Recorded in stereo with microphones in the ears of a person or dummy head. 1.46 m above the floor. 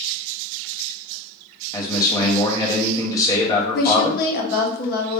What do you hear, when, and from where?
1.7 s a man speaking: 30° left (ahead or behind), 0.8 m
3.8 s a woman speaking: 55° left (ahead or behind), 0.6 m